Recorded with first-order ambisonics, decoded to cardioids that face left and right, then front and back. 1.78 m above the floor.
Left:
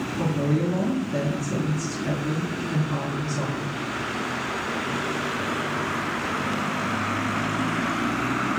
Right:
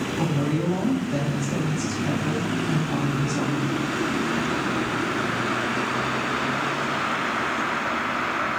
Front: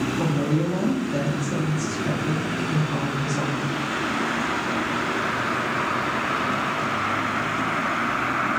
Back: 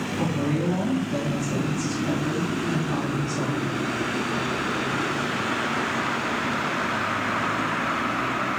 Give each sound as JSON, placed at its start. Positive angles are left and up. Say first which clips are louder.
{"t": 0.2, "sound": "a woman speaking", "louder": "left 2 dB, back 1 dB", "azimuth_deg": -115, "distance_m": 1.6}